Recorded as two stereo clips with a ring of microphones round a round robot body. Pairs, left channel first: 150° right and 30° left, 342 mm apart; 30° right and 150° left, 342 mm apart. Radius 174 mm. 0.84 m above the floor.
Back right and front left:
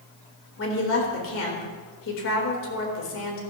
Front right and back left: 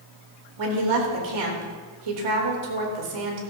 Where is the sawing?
I don't hear sawing.